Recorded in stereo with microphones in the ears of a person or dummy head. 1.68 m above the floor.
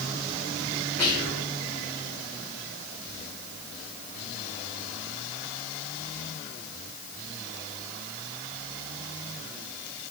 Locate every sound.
1.0 s whispering: 5° left (ahead or behind), 1.6 m